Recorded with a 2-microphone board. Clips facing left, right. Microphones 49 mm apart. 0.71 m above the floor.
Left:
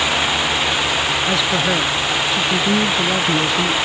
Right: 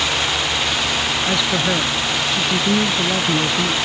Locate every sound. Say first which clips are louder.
1.3 s a man speaking: left 1 dB; 5° left (ahead or behind)